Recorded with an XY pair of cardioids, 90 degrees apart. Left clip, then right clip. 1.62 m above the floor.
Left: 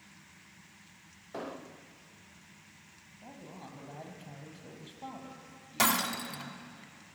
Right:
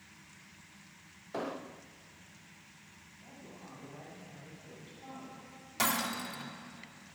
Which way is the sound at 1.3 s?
20° right.